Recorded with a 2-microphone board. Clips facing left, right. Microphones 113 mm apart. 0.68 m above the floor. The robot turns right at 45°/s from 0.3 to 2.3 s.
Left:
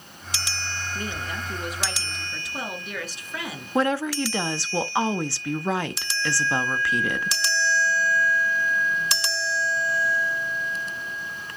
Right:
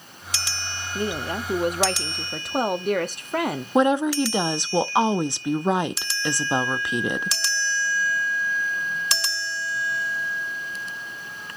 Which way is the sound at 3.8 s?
20° right (ahead or behind).